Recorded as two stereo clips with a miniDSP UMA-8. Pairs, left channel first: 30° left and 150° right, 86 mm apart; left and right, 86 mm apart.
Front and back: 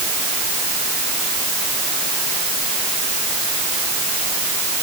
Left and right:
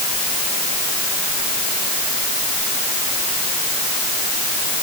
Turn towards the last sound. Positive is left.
No sound to turn to.